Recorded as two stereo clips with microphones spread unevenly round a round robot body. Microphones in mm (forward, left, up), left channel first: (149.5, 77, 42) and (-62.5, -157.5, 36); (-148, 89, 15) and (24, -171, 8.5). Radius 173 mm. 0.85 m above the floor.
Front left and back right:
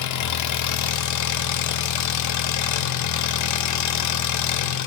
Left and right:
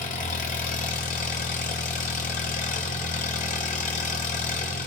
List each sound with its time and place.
0.0 s an engine running: 60° left, 0.7 m